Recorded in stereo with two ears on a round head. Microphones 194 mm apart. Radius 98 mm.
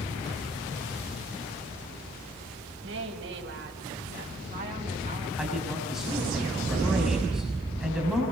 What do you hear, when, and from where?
2.8 s a woman speaking: 65° right (ahead or behind), 4 m; by 5.3 s 25° right (ahead or behind), 5 m
5.4 s a man speaking: 5° right (ahead or behind), 6 m